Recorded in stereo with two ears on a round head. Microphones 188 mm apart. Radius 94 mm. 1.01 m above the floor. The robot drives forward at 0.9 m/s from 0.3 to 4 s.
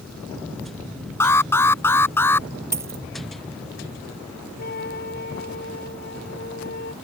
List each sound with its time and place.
1.2 s an alarm: 15° left (ahead or behind); by 2.5 s 10° left (ahead or behind)
2.7 s a dropped coin: 15° right (ahead or behind)
4.6 s a trumpet: 50° left (ahead or behind)